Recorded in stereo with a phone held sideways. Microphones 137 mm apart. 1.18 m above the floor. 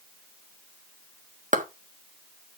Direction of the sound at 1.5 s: 65° right (ahead or behind).